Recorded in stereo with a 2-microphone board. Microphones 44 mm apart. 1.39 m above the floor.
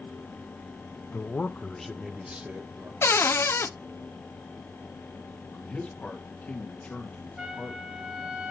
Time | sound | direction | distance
1.1 | a man speaking | 55° left (ahead or behind) | 1.0 m
3.0 | a cupboard door | 70° left (ahead or behind) | 0.5 m
5.5 | a man speaking | 35° left (ahead or behind) | 1.9 m
7.4 | a trumpet | 15° right (ahead or behind) | 1.9 m